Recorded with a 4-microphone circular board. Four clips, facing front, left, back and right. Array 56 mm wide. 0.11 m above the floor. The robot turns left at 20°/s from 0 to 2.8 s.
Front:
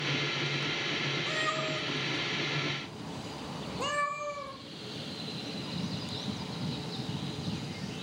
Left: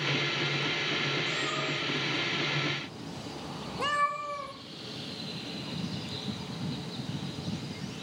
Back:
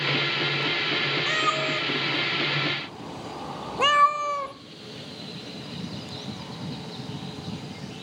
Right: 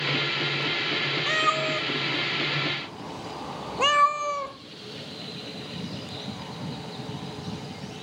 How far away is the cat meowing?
About 1.0 m.